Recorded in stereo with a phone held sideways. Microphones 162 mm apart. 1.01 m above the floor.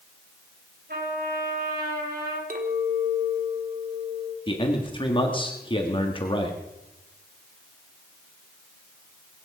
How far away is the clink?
About 2 m.